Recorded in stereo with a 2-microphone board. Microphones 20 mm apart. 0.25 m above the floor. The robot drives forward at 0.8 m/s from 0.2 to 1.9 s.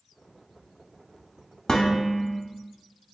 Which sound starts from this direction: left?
Dishes clattering, at 1.7 s.